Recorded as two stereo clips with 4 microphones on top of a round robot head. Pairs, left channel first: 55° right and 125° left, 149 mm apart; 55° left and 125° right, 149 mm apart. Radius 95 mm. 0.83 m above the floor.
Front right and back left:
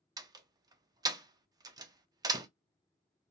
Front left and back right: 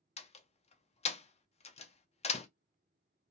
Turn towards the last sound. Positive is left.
turn(degrees=70)